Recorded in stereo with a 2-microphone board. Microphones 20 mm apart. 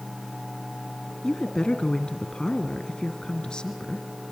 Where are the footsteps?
I don't hear footsteps.